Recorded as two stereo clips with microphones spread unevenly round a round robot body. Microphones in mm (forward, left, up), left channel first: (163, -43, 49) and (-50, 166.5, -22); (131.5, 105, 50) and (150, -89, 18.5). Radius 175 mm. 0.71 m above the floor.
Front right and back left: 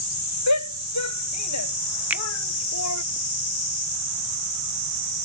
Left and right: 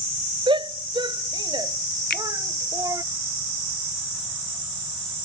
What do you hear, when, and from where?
0.5 s a shout: 20° right; by 3.0 s 10° right
2.1 s a finger snap: 65° left